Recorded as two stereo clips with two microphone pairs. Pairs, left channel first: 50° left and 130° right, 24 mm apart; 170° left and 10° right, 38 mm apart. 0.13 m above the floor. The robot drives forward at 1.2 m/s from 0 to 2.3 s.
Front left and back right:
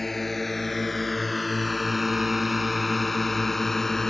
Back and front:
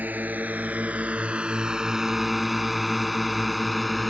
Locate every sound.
0.0 s a drone: 30° right; by 4.1 s 85° left